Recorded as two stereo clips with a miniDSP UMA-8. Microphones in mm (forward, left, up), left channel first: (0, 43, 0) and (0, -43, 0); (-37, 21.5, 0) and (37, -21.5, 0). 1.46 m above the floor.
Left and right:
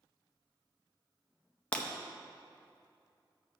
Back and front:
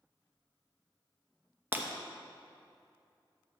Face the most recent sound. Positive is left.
turn(degrees=25)